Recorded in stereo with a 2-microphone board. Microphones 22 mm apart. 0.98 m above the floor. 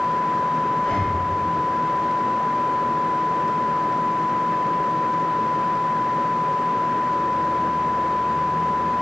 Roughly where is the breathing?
Left.